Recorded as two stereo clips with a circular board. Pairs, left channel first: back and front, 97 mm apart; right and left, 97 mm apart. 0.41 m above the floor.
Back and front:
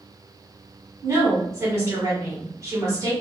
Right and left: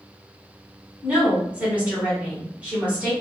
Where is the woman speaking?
25° left, 1.6 m.